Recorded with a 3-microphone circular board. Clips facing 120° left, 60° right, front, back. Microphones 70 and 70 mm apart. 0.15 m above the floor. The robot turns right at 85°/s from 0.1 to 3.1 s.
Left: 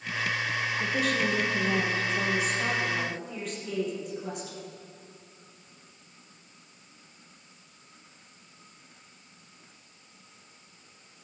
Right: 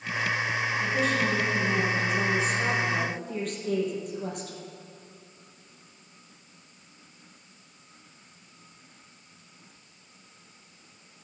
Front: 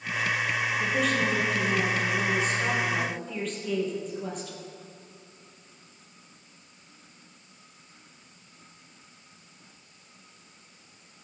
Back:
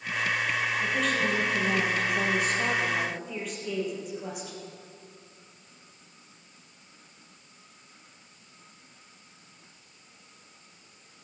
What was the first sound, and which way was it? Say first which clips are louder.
A woman speaking: right 1 dB, front 2 dB; 65° left.